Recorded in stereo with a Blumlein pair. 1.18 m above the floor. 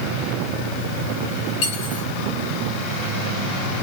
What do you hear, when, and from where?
1.6 s cutlery clinking: 45° left, 9.5 m